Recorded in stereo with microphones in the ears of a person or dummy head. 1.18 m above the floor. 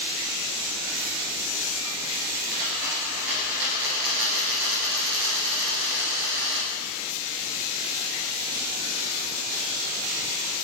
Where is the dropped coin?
70° right (ahead or behind), 3 m.